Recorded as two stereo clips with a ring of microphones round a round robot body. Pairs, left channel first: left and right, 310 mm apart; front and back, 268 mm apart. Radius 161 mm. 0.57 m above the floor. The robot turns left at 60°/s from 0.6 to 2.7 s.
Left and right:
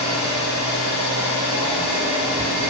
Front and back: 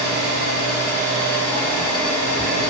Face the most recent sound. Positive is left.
turn(degrees=0)